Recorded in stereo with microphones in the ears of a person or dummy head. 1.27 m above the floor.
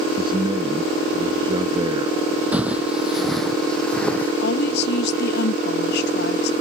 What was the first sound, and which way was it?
A man speaking, 30° right (ahead or behind).